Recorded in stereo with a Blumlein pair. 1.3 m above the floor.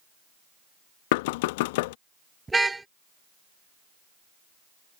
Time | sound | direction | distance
1.1 | knocking | 50° left | ?
2.5 | a car horn | 10° right | ?